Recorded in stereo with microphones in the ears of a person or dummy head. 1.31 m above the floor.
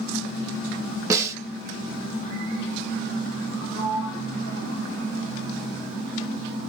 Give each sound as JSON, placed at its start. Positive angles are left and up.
{"t": 1.1, "sound": "a snare drum", "side_deg": -25, "distance_m": 1.2}
{"t": 3.7, "sound": "a sliding door", "side_deg": 80, "distance_m": 2.5}